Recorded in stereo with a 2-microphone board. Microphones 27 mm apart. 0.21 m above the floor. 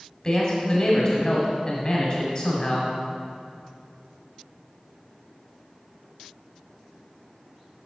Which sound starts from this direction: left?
A man speaking, at 0.2 s.